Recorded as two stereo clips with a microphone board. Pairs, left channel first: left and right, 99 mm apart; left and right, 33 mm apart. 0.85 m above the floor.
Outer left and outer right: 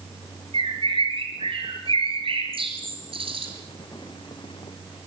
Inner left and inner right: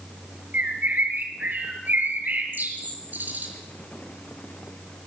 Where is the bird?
70° right (ahead or behind), 4.5 m.